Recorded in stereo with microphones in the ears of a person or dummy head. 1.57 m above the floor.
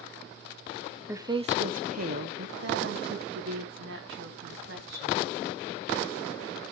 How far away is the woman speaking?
About 0.6 m.